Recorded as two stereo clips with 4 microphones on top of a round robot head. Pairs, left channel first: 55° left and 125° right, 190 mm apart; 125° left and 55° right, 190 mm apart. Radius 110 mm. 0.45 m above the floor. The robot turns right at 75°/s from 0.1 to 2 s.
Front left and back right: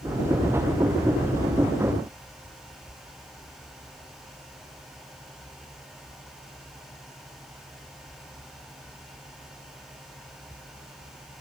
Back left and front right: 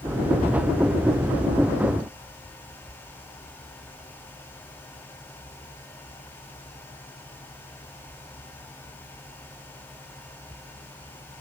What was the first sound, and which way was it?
Only background noise.